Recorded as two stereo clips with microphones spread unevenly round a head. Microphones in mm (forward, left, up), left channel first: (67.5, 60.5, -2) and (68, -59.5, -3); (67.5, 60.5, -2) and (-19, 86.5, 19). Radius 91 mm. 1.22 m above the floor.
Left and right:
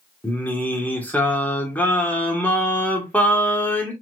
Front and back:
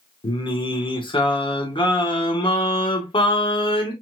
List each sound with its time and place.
0.2 s singing: 15° left, 1.9 m